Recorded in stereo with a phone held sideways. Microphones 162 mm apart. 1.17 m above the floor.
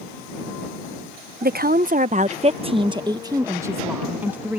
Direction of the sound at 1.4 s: 70° right (ahead or behind).